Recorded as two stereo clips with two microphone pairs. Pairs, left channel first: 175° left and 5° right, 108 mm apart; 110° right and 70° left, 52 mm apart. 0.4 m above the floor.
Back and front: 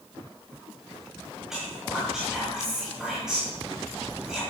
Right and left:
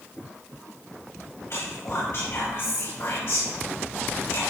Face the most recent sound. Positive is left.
turn(degrees=-90)